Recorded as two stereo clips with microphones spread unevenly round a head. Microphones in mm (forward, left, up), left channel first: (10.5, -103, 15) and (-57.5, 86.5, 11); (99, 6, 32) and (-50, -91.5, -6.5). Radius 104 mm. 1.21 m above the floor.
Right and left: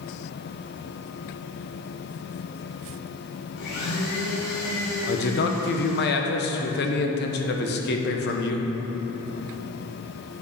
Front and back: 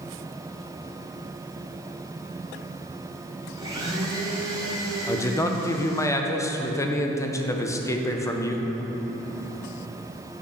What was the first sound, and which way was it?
A blender, 75° right.